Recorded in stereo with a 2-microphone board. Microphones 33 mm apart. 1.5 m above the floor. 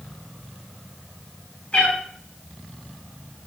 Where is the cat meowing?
45° left (ahead or behind), 5.5 m.